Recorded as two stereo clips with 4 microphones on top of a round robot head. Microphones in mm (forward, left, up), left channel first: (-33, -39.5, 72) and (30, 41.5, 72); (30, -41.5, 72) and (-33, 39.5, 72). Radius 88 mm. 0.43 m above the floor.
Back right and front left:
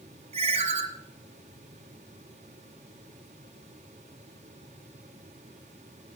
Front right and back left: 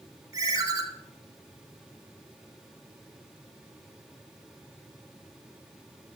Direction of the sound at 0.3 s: 70° left.